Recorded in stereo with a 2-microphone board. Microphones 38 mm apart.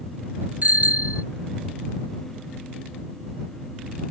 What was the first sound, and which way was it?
A bicycle bell, 45° right (ahead or behind).